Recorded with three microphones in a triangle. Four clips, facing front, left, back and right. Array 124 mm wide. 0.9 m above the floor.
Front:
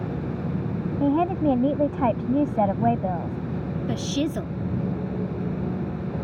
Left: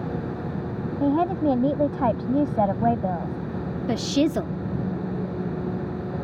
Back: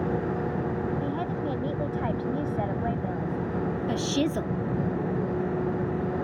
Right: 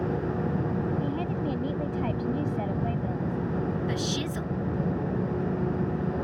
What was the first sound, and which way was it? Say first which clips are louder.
A woman speaking: left 9 dB, front 8 dB; 50° left.